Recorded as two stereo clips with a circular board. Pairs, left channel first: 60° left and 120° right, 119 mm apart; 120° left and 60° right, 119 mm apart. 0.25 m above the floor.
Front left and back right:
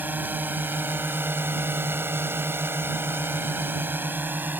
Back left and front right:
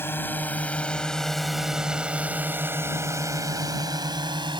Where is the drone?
175° left; by 4.6 s 55° right.